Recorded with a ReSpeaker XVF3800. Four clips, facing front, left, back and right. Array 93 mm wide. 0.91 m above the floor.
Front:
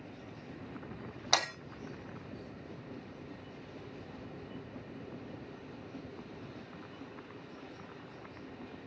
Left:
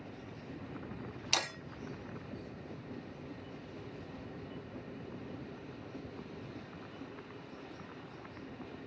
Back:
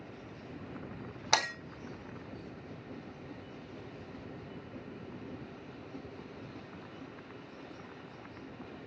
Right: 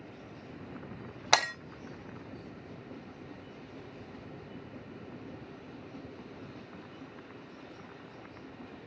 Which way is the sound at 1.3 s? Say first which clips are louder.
Right 10 dB, back 2 dB; 95° right.